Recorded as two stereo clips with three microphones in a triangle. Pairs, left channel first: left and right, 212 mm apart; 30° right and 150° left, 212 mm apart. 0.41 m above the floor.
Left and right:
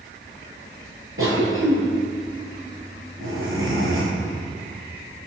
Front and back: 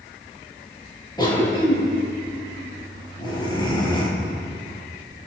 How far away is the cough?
About 6.5 m.